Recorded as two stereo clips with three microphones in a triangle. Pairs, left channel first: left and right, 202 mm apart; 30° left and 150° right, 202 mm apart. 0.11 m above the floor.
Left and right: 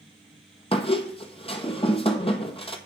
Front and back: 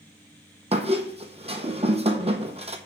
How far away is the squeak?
About 0.8 m.